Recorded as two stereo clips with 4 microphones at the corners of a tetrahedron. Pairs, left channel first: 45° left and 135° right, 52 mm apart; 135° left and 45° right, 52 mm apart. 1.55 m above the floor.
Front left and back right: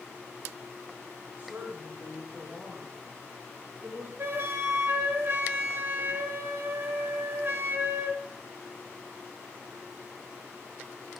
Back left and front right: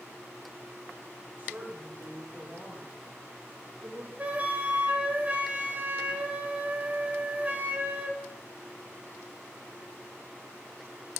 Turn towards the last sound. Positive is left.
turn(degrees=-100)